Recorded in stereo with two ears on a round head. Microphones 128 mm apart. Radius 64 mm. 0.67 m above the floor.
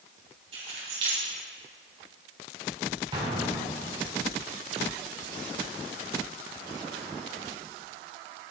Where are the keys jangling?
45° right (ahead or behind), 3 m.